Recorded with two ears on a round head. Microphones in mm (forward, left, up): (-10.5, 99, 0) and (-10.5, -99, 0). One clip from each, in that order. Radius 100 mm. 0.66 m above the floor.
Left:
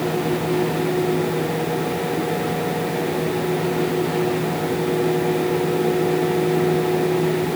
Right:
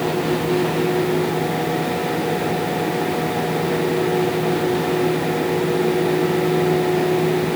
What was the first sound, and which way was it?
Only background noise.